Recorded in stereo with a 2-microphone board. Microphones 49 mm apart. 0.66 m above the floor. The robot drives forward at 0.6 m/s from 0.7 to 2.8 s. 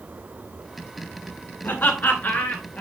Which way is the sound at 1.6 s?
35° left (ahead or behind).